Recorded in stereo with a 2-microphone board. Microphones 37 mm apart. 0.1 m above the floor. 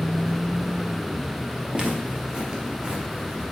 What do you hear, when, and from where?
1.7 s footsteps: 25° right (ahead or behind), 1.3 m